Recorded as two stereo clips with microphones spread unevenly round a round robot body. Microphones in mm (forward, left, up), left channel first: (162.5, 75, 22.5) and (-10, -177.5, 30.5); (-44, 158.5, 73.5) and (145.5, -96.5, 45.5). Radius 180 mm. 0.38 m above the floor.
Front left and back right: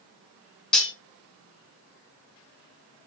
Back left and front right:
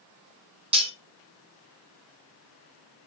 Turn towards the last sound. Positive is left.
turn(degrees=-25)